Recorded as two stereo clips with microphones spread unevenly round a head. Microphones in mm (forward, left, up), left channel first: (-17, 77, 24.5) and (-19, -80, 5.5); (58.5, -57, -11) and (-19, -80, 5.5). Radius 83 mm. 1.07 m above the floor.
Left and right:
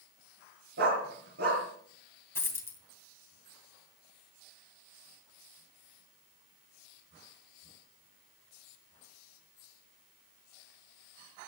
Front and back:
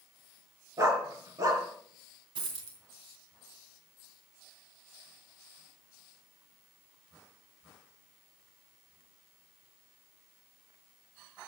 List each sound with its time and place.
0.8 s a dog barking: 115° right, 4.5 m
2.4 s a dropped coin: 160° left, 2.5 m